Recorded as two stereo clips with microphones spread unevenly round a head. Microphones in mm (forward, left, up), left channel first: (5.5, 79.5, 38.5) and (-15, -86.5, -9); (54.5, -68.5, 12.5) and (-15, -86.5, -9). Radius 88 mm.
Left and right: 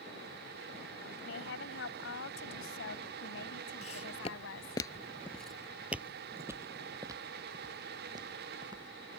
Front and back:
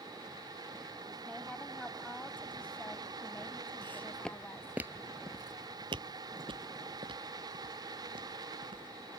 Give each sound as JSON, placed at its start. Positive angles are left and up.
{"t": 1.2, "sound": "a woman speaking", "azimuth_deg": 100}
{"t": 3.8, "sound": "footsteps", "azimuth_deg": 60}